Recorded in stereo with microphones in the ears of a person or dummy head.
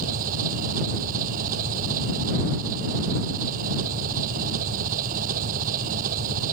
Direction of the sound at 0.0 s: 50° right (ahead or behind).